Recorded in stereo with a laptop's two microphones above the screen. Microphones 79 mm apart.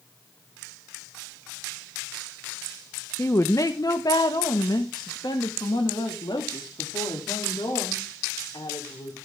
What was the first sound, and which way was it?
A woman speaking, 35° left (ahead or behind).